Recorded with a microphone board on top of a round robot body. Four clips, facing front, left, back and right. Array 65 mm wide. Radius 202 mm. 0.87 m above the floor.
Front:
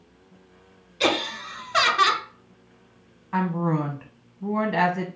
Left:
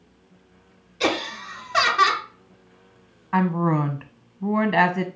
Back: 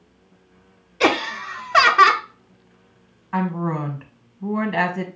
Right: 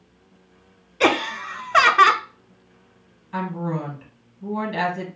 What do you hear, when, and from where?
1.0 s laughter: 135° right, 0.8 m
3.3 s a woman speaking: 90° left, 1.0 m